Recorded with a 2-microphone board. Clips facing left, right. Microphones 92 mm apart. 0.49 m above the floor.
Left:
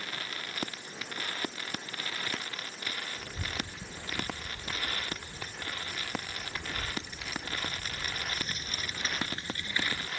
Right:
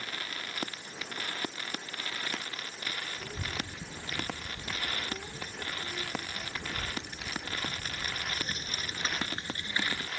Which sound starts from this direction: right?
A child speaking, at 3.2 s.